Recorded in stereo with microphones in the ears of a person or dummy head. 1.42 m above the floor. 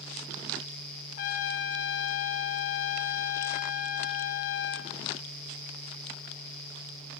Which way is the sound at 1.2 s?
55° left (ahead or behind).